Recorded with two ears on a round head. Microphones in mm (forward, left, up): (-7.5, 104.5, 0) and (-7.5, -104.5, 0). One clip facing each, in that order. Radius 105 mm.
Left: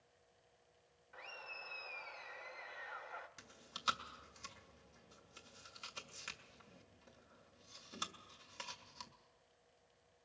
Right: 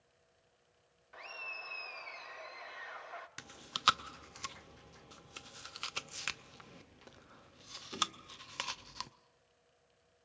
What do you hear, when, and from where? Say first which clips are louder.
1.1 s laughter: right 3 dB; 55° right (ahead or behind), 0.9 m
3.4 s chewing: right 10 dB; 75° right (ahead or behind), 0.7 m